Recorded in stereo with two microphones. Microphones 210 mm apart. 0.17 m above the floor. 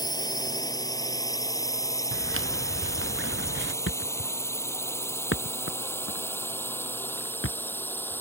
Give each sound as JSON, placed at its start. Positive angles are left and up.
{"t": 0.0, "sound": "a drone", "side_deg": 20}
{"t": 2.1, "sound": "footsteps", "side_deg": -75}
{"t": 3.9, "sound": "a thud", "side_deg": 70}